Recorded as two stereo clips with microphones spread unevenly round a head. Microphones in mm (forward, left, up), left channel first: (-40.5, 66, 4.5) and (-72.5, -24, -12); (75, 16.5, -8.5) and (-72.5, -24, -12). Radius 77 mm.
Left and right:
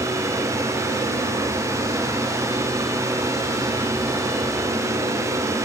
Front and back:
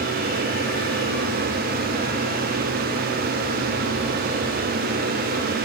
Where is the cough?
I don't hear a cough.